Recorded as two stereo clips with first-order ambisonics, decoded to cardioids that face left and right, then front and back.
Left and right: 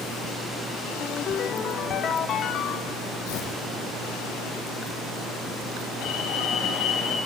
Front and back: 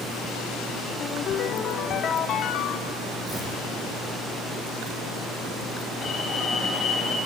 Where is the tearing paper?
105° left, 5 m.